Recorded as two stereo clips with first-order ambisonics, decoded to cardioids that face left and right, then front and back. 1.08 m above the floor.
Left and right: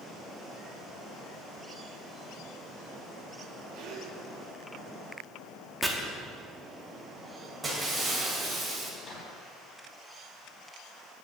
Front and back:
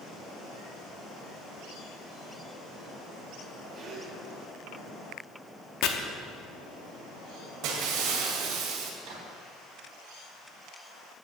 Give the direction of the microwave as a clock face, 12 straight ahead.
7 o'clock.